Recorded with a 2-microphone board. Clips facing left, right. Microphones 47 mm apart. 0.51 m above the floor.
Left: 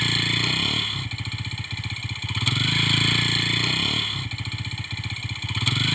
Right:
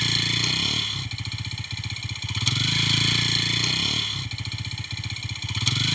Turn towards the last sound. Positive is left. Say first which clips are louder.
# left 2 dB
turn(degrees=15)  # may be behind; listen again after turning